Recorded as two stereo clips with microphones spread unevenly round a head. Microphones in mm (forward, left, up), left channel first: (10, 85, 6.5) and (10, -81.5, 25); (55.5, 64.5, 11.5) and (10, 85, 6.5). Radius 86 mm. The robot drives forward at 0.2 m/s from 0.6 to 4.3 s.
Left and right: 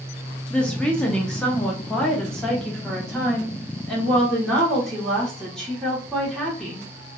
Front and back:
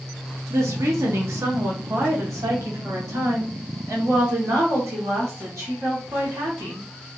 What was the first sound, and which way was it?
A woman speaking, 170° left.